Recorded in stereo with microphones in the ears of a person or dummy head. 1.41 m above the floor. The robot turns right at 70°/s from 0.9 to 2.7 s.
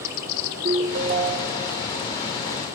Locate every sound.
0.6 s a ringtone: 20° right (ahead or behind), 0.6 m; by 1.7 s 10° right (ahead or behind), 0.6 m